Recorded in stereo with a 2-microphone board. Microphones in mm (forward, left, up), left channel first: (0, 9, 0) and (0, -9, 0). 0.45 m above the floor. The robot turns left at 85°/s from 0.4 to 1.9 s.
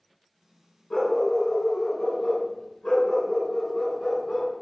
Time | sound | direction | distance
0.9 | a dog barking | 140° left | 1.9 m